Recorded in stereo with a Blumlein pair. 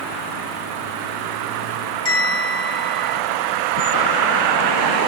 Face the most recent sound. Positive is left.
turn(degrees=25)